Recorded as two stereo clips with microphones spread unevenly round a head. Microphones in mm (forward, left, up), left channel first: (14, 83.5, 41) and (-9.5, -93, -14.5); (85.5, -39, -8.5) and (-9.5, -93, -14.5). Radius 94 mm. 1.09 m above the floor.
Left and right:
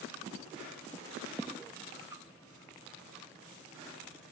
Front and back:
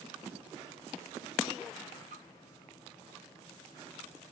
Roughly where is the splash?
Behind.